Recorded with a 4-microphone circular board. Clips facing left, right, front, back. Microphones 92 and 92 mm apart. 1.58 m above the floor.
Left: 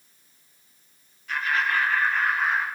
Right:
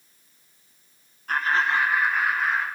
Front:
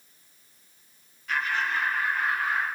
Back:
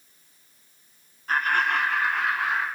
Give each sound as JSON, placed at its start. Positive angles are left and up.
{"t": 1.3, "sound": "laughter", "azimuth_deg": -130, "distance_m": 1.0}